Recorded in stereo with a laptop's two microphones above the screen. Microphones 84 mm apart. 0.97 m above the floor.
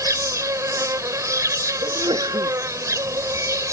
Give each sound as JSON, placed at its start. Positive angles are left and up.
{"t": 0.0, "sound": "an insect", "side_deg": -40}
{"t": 1.8, "sound": "a sneeze", "side_deg": -75}